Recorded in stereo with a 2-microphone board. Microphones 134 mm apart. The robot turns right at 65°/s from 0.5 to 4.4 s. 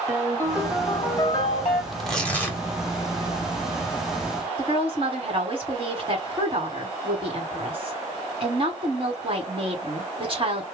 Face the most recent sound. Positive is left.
turn(degrees=-45)  # may be behind; listen again after turning